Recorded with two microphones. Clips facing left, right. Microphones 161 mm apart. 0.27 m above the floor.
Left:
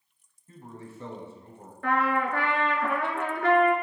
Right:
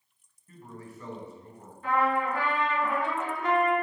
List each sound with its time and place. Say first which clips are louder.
0.5 s a man speaking: left 1 dB; 30° left (ahead or behind), 1.9 m
1.8 s a trumpet: even; 80° left, 1.3 m